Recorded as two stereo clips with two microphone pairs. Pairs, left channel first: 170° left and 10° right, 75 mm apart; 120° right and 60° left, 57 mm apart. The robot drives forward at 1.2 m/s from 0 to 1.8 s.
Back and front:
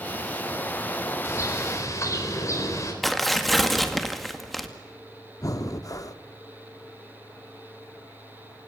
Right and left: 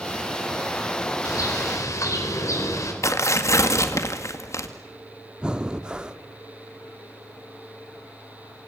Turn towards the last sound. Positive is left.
turn(degrees=135)